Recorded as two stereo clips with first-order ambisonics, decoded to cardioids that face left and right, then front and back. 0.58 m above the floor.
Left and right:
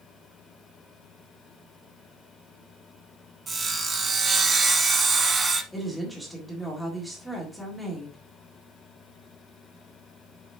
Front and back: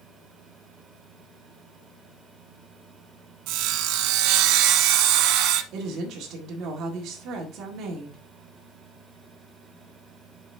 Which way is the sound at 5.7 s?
Straight behind.